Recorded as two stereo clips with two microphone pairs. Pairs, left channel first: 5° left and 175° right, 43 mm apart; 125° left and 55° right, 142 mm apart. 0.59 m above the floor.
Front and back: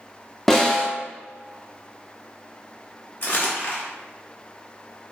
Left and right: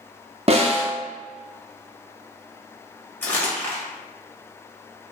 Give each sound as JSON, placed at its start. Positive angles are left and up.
{"t": 0.5, "sound": "a snare drum", "azimuth_deg": -75, "distance_m": 0.5}
{"t": 3.2, "sound": "crumpling", "azimuth_deg": 45, "distance_m": 0.8}